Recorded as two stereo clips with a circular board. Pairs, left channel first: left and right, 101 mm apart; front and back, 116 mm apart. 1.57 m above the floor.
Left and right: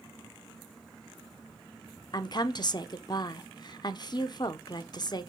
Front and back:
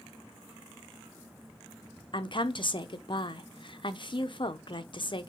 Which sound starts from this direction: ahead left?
A woman speaking, at 2.1 s.